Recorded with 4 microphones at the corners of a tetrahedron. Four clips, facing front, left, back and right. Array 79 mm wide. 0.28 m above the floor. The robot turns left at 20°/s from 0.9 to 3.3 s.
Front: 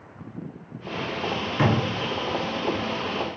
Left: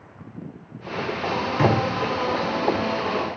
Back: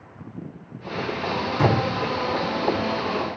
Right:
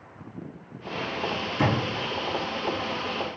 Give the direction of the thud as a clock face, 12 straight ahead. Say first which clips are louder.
Left 5 dB, back 2 dB; 11 o'clock.